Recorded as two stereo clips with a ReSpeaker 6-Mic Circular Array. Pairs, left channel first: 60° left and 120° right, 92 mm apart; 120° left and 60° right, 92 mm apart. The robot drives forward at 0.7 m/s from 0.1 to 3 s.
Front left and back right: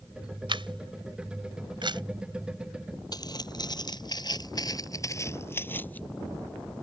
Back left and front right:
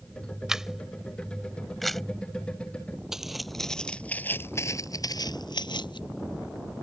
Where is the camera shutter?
145° right; by 2.0 s 150° right.